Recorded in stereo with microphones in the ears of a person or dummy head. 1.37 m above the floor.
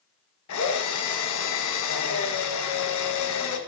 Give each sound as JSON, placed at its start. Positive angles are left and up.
{"t": 0.5, "sound": "a drill", "side_deg": 80, "distance_m": 1.5}